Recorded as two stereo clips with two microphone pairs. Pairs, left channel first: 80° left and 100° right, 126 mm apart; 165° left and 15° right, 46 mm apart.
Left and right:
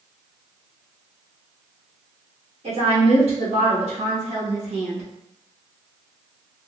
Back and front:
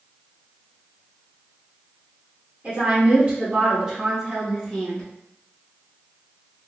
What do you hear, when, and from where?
2.6 s a woman speaking: 65° right, 1.5 m; by 5.1 s 135° right, 0.9 m